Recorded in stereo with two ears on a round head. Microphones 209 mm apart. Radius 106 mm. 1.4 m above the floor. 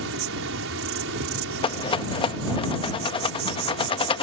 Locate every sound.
0.0 s an insect: 55° right (ahead or behind)
1.6 s a rattle: 20° left (ahead or behind)